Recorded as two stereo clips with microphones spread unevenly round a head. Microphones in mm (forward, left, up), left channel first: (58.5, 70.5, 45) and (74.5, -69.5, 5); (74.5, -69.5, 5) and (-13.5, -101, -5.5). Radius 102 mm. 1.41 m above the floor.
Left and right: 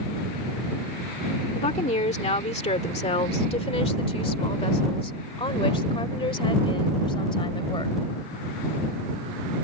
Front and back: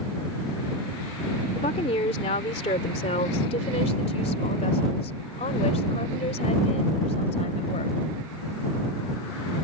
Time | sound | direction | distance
1.6 | a woman speaking | 60° left | ?